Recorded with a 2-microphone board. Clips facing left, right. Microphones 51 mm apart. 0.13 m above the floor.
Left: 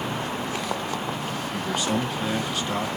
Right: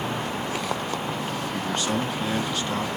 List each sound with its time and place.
1.5 s a man speaking: centre (ahead or behind), 1.4 m